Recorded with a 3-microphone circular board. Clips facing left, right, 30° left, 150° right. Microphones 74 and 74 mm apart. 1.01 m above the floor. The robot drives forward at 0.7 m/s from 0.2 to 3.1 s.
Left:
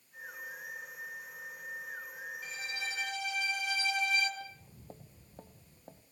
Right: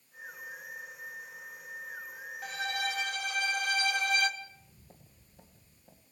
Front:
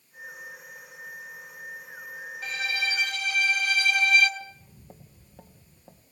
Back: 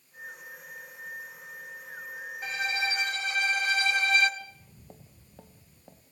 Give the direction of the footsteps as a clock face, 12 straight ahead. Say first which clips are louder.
Left 2 dB, front 3 dB; 8 o'clock.